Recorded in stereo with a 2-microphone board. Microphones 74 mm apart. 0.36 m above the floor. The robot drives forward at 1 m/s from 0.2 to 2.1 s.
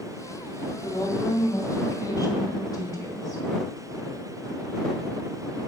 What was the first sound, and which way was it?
A woman speaking, 55° left (ahead or behind).